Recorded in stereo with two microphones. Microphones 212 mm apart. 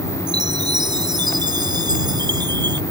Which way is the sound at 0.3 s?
20° right (ahead or behind).